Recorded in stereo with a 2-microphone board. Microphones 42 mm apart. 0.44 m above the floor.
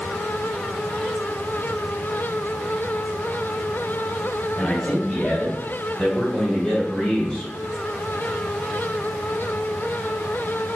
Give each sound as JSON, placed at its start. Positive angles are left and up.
{"t": 4.6, "sound": "a man speaking", "side_deg": 20, "distance_m": 1.5}